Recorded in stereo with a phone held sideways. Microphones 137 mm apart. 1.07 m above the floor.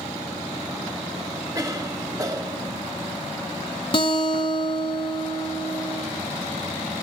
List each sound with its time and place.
1.6 s a cough: 25° right (ahead or behind), 1.6 m
3.9 s a guitar: 40° left (ahead or behind), 1.1 m